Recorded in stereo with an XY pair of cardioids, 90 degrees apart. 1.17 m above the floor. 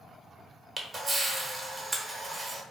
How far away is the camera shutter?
About 1.0 m.